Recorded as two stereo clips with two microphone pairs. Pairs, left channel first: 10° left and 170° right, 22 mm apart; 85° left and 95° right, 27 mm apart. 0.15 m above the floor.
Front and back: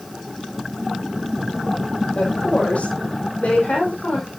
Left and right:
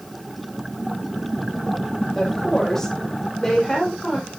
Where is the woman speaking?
10° left, 6.5 m.